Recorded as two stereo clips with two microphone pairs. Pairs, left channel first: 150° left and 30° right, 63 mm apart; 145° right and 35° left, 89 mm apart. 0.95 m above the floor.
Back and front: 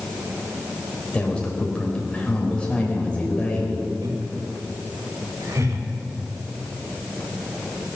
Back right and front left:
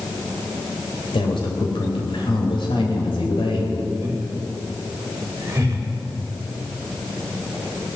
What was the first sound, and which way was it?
A man speaking, 135° right.